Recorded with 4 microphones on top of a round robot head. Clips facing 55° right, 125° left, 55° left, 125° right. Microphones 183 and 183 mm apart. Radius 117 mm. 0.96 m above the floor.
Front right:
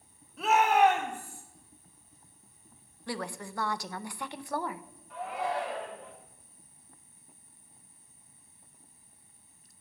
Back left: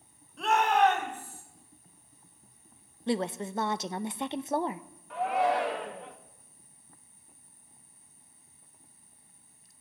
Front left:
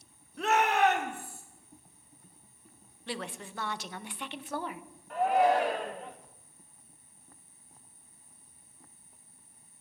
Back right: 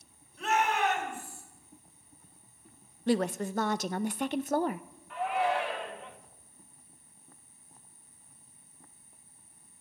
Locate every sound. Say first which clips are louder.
0.4 s a shout: front right 1 dB, front left 3 dB; 30° left, 3 m; by 1.4 s 20° left, 4.5 m
3.1 s a woman speaking: back left 7 dB, back right 12 dB; 170° right, 0.6 m
5.1 s a shout: back left 6 dB, front left 5 dB; 105° left, 1.5 m